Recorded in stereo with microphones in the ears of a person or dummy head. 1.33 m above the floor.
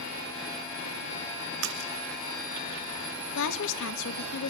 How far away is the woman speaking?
About 1.7 m.